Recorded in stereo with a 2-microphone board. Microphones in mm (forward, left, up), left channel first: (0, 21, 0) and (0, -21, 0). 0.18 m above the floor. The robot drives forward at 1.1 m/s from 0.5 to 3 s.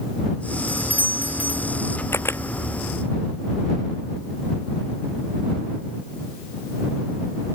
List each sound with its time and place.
0.7 s a doorbell: 50° right (ahead or behind); by 1.8 s 40° right (ahead or behind)
2.1 s a camera shutter: 85° left; by 2.4 s 80° left